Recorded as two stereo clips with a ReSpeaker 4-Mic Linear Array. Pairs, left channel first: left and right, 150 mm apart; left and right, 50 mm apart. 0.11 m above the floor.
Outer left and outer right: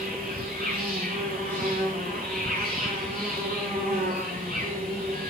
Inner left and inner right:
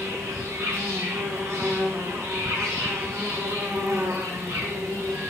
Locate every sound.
0.0 s an insect: 70° right (ahead or behind), 9.5 m